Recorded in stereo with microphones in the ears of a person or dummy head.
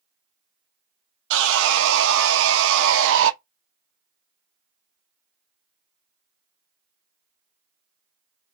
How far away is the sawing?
About 0.6 m.